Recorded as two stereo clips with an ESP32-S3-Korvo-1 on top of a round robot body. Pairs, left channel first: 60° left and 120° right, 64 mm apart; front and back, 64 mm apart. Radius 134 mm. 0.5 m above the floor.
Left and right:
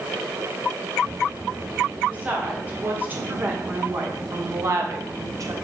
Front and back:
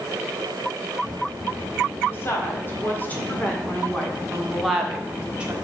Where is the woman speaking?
50° right, 2.5 m; by 5.5 s 115° right, 1.5 m.